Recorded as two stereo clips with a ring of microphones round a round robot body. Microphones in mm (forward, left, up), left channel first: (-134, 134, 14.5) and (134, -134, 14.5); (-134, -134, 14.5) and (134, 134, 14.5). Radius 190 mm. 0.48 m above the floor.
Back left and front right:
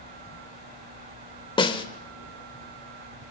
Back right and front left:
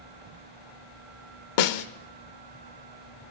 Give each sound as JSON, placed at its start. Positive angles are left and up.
{"t": 1.6, "sound": "a snare drum", "azimuth_deg": -145, "distance_m": 1.1}